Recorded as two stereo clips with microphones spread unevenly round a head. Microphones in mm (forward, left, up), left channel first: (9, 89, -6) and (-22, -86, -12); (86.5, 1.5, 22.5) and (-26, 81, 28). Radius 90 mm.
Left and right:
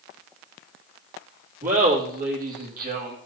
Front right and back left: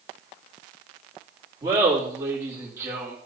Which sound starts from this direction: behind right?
Laughter, at 1.6 s.